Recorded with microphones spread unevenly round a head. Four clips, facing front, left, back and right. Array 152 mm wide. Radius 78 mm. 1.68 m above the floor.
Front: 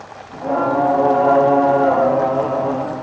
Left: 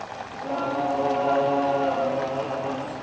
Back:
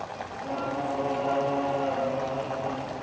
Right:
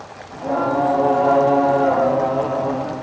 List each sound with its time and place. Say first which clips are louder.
0.3 s singing: right 8 dB, front 14 dB; 25° right